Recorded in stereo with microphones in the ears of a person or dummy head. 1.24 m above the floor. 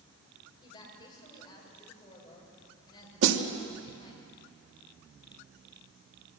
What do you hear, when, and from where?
0.6 s a woman speaking: 30° left (ahead or behind), 6 m
3.2 s a snare drum: 60° right (ahead or behind), 1.7 m